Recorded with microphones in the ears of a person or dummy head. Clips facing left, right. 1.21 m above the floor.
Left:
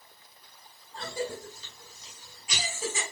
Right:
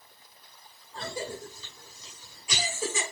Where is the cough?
85° right, 6 m.